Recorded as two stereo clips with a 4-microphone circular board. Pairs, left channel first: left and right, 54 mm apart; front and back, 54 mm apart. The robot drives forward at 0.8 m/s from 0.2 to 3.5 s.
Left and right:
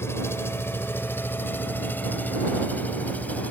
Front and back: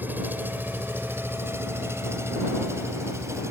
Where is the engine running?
125° left; by 3.5 s 150° left.